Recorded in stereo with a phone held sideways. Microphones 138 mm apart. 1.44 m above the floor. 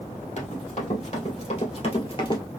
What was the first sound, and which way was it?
Running footsteps, 60° left (ahead or behind).